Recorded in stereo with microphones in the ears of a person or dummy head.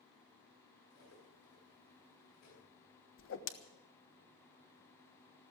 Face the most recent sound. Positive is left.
turn(degrees=65)  # may be behind; listen again after turning